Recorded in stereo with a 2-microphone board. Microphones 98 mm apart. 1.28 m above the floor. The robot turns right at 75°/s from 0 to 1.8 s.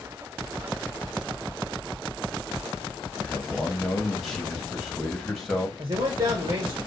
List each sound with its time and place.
3.2 s a man speaking: centre (ahead or behind), 1.2 m
5.8 s a man speaking: 45° right (ahead or behind), 1.4 m